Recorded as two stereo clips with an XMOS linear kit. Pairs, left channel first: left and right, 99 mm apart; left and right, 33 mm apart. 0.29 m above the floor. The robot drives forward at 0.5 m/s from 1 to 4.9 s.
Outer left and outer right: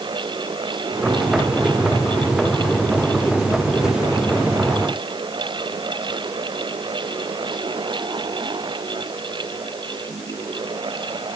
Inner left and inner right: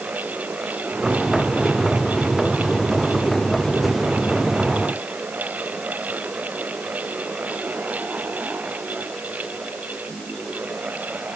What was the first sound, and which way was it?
Only background noise.